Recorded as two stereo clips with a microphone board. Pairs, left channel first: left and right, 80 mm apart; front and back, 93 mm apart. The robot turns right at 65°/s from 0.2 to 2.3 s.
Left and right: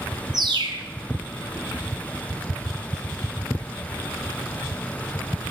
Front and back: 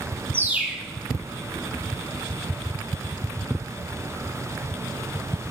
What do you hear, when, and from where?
0.3 s a bird: 120° right, 0.6 m; by 0.9 s 85° right, 0.6 m